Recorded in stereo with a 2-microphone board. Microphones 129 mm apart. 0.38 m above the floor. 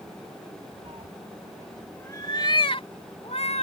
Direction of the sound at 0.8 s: 50° right (ahead or behind).